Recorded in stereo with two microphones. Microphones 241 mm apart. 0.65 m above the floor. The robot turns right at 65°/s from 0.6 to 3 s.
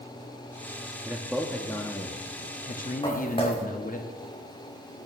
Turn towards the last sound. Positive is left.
turn(degrees=20)  # may be behind; listen again after turning